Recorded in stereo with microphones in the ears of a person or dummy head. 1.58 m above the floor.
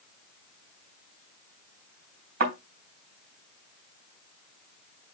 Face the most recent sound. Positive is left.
turn(degrees=-50)  # may be behind; listen again after turning